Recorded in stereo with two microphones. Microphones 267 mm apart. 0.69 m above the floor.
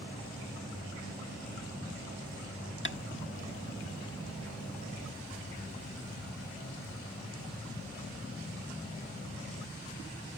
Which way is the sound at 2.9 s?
40° left (ahead or behind).